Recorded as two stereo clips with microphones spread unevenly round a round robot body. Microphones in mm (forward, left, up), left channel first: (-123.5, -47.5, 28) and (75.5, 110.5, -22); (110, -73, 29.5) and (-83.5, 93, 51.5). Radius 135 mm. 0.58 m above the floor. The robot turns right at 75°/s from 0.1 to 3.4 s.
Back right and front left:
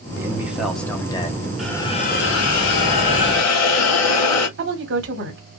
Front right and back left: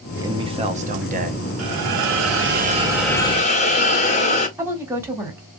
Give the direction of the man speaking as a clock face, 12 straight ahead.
10 o'clock.